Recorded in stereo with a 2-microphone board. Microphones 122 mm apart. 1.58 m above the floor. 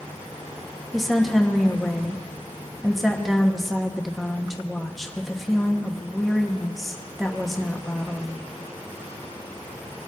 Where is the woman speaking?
Centre (ahead or behind), 1.0 m.